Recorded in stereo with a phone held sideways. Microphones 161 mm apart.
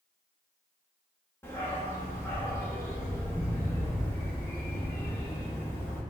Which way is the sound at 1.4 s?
15° left (ahead or behind).